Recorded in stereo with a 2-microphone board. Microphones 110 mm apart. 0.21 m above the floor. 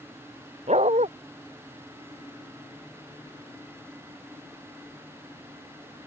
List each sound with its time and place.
0.7 s a dog barking: 90° right